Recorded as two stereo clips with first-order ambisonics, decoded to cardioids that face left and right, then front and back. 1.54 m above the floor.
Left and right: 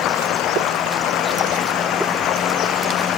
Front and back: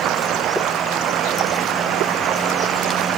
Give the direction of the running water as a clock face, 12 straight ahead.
8 o'clock.